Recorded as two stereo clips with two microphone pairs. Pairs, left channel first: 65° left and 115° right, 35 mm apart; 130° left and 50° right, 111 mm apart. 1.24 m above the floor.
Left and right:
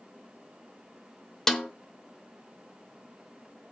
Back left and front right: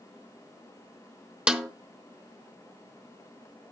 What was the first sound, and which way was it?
A snare drum, 10° left.